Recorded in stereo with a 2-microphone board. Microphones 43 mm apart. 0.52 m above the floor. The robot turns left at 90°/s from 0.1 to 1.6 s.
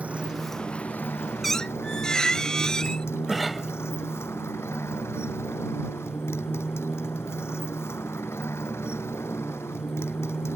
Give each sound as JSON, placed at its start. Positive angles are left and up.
{"t": 0.0, "sound": "a motorcycle", "azimuth_deg": -150}
{"t": 1.4, "sound": "a squeak", "side_deg": 0}
{"t": 3.3, "sound": "a cough", "side_deg": 0}